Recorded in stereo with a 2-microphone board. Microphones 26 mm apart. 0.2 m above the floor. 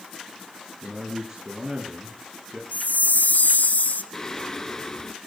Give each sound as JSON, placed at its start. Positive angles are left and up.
{"t": 0.8, "sound": "a man speaking", "side_deg": -15, "distance_m": 4.0}
{"t": 2.7, "sound": "a chime", "side_deg": 75, "distance_m": 1.0}
{"t": 4.1, "sound": "singing", "side_deg": 20, "distance_m": 1.4}